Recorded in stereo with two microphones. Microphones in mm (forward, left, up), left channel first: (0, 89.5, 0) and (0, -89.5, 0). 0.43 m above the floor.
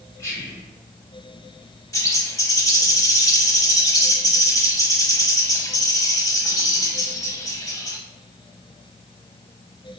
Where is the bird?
20° left (ahead or behind), 0.6 m.